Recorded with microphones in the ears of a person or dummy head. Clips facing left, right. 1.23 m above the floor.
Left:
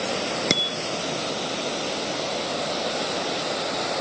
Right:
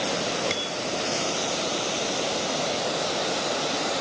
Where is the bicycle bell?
70° left (ahead or behind).